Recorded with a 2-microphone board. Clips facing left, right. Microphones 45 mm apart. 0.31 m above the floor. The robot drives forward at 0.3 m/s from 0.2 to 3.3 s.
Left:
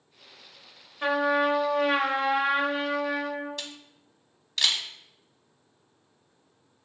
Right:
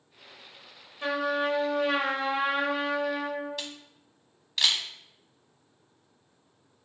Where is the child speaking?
I don't hear a child speaking.